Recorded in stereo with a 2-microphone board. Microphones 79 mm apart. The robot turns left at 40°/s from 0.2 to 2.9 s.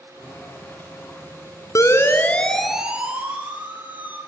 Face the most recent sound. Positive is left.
turn(degrees=-20)  # may be behind; listen again after turning